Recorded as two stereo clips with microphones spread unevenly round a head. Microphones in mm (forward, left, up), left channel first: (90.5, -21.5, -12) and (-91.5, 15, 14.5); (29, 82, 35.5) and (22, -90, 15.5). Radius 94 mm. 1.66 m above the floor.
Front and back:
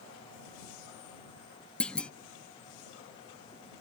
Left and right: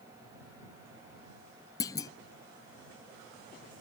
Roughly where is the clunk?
Left.